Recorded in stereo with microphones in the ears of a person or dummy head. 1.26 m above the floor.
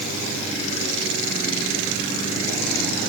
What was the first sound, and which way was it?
Only background noise.